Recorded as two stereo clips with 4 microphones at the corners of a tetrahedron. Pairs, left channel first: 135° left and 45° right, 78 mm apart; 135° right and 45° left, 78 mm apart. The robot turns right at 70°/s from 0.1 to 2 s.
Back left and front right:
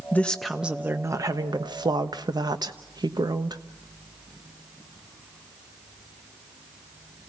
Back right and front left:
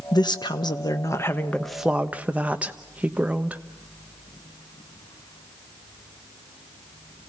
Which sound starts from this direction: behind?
A woman speaking, at 0.1 s.